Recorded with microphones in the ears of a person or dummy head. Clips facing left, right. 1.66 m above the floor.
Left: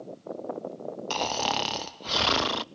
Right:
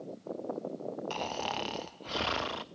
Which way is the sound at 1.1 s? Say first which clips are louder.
Left 6 dB; 65° left (ahead or behind).